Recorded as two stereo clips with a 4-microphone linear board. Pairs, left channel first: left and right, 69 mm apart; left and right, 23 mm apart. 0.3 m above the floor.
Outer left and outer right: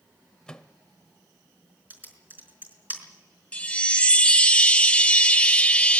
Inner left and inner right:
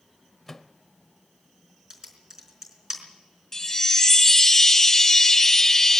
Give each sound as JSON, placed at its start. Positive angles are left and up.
{"t": 0.5, "sound": "a microwave", "side_deg": 10, "distance_m": 0.9}
{"t": 1.9, "sound": "typing on a keyboard", "side_deg": -30, "distance_m": 4.5}
{"t": 3.5, "sound": "a chime", "side_deg": 15, "distance_m": 0.8}